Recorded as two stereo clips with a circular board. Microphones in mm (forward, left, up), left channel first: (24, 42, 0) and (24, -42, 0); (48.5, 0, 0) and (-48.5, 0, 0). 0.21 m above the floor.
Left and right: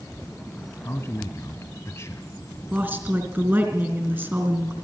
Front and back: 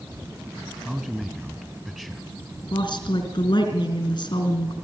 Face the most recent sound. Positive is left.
turn(degrees=-25)